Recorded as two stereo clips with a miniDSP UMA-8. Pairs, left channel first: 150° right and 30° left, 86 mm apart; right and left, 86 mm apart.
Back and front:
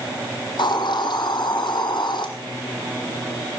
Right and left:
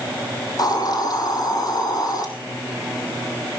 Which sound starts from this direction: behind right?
A hiss, at 0.6 s.